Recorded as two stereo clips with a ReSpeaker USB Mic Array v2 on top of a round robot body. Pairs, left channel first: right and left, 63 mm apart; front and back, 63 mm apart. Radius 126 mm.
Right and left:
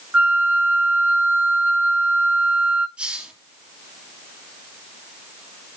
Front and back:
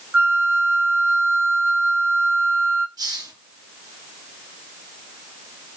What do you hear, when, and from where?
0.1 s a flute: 145° left, 1.2 m
3.0 s a hiss: 165° left, 4 m